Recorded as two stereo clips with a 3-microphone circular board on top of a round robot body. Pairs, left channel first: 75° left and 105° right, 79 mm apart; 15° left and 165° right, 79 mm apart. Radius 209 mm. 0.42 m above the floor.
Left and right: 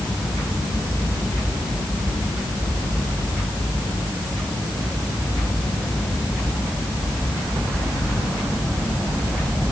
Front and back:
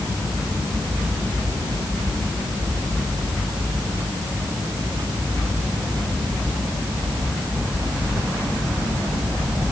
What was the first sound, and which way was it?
Only background noise.